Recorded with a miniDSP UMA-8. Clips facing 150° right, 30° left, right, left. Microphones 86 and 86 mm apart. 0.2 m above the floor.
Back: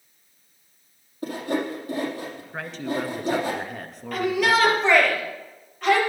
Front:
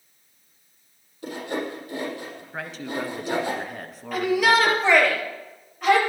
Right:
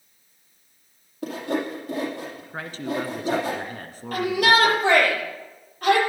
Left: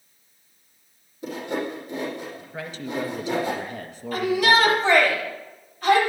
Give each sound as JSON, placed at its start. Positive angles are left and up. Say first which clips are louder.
{"t": 1.2, "sound": "sawing", "louder": "back 3 dB, right 2 dB", "azimuth_deg": -105, "distance_m": 5.5}
{"t": 2.5, "sound": "a man speaking", "louder": "back 2 dB, right 2 dB", "azimuth_deg": -60, "distance_m": 1.9}
{"t": 4.1, "sound": "a shout", "louder": "front 1 dB, even", "azimuth_deg": -55, "distance_m": 6.0}